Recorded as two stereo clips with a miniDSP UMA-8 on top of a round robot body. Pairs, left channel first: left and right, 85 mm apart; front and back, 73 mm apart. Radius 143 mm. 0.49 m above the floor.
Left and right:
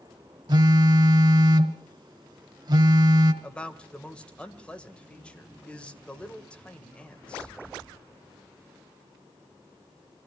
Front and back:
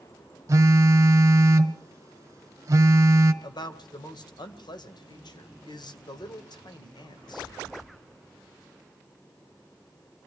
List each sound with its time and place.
0.5 s a phone buzzing: 130° right, 1.2 m
3.4 s a man speaking: 15° left, 2.5 m